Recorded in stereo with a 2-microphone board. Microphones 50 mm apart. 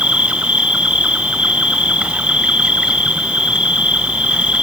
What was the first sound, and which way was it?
An insect, 20° right (ahead or behind).